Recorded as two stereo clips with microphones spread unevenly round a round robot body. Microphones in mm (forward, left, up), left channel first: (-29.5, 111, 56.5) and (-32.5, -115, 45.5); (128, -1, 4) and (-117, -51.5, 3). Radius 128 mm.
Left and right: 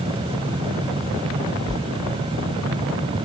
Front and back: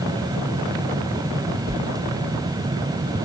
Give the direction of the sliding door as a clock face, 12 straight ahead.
3 o'clock.